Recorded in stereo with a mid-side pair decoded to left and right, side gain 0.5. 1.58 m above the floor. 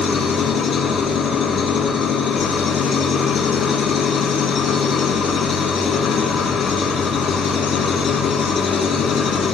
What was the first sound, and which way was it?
An engine running, 55° left.